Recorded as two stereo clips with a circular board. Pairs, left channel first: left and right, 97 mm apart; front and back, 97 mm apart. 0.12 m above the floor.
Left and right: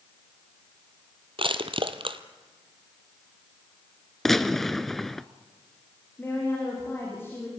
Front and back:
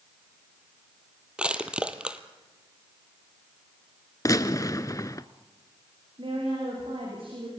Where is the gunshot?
5° left, 0.7 m.